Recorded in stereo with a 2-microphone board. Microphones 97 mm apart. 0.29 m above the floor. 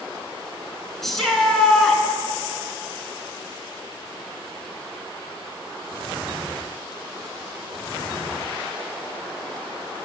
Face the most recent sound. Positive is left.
turn(degrees=5)  # may be behind; listen again after turning